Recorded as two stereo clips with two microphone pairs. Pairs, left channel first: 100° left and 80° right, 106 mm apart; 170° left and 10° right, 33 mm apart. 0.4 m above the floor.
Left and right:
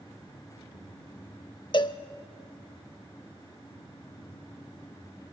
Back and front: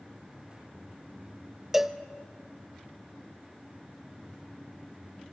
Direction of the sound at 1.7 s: 70° left.